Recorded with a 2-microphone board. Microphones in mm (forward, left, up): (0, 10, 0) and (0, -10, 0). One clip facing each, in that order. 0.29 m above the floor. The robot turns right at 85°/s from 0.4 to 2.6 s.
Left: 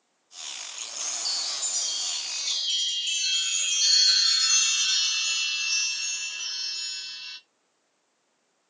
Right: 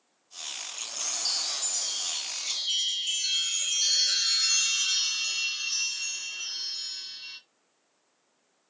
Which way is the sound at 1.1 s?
10° right (ahead or behind).